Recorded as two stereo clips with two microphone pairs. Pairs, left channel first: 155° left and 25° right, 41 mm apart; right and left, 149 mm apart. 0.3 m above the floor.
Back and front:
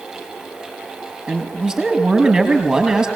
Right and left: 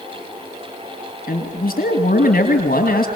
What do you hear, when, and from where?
1.3 s a man speaking: 105° right, 5 m